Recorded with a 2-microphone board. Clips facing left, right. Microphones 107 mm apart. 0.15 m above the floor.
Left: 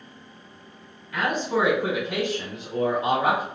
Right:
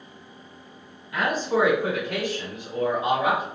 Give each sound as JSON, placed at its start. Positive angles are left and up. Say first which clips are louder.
{"t": 1.1, "sound": "a man speaking", "louder": "right 1 dB", "side_deg": -10, "distance_m": 1.3}